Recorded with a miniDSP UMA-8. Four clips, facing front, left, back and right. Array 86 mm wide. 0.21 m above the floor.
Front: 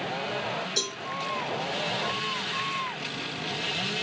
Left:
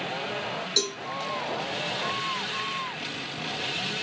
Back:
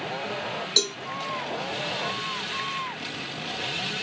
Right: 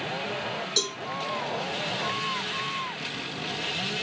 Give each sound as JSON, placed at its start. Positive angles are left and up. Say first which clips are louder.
{"t": 0.8, "sound": "a cowbell", "louder": "left 1 dB, back 4 dB", "azimuth_deg": 175, "distance_m": 1.3}